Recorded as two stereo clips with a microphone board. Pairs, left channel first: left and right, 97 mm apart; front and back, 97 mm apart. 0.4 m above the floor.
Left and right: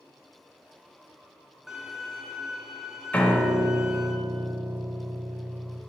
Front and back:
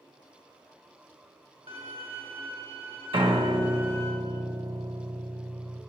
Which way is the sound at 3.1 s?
165° left.